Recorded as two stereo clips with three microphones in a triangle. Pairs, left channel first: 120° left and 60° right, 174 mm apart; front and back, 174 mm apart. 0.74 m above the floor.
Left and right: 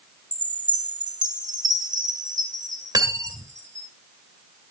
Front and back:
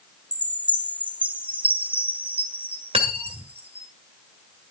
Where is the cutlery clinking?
125° right, 1.7 m.